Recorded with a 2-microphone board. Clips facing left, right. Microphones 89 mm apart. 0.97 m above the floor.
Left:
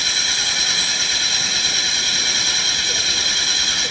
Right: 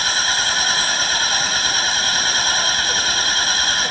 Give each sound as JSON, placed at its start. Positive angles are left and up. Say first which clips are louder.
{"t": 0.0, "sound": "an engine running", "louder": "right 6 dB", "side_deg": -50}